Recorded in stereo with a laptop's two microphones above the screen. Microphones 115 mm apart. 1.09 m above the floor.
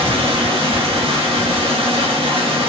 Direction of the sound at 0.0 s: 65° right (ahead or behind).